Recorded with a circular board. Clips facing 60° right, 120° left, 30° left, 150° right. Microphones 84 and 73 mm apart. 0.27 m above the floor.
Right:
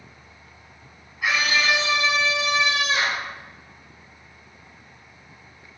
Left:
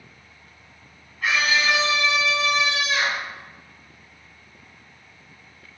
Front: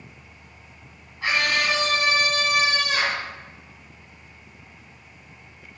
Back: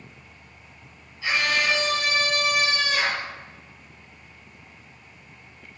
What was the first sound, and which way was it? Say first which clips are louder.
A scream: left 1 dB, front 1 dB; 20° left.